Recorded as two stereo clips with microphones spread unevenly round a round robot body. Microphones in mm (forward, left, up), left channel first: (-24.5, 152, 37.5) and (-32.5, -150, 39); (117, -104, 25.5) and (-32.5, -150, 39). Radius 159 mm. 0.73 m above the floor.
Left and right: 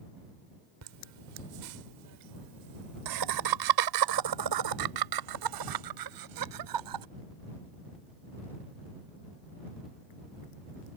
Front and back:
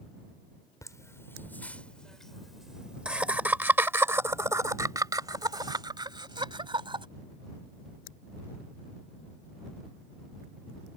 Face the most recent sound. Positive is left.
turn(degrees=-105)